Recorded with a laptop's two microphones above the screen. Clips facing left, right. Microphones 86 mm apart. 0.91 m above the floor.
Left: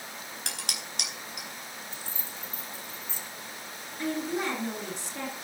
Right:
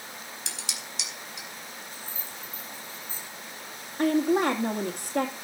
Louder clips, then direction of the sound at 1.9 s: Even; 75° left (ahead or behind).